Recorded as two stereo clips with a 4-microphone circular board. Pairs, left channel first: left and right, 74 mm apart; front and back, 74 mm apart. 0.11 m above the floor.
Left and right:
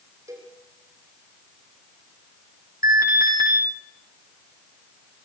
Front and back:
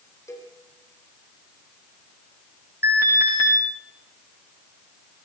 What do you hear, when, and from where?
0.3 s a cowbell: 45° right, 5 m
2.8 s an alarm: 125° right, 6.5 m